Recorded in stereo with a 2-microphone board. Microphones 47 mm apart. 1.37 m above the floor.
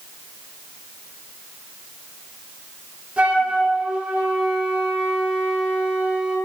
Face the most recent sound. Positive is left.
turn(degrees=-30)  # may be behind; listen again after turning